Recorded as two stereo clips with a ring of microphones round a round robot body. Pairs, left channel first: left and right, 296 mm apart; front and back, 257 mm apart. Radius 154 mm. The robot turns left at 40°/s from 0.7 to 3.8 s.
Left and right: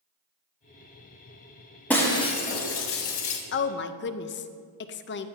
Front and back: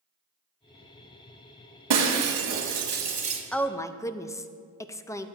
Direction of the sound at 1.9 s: 175° left.